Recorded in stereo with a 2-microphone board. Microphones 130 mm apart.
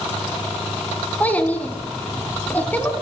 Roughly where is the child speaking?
Centre.